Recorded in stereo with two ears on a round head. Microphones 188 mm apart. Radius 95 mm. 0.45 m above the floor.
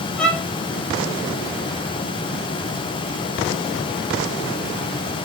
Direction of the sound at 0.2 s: 5° left (ahead or behind).